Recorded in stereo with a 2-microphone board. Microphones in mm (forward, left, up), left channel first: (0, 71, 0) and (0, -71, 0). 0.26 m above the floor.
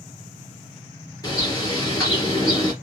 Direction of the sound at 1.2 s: 25° left (ahead or behind).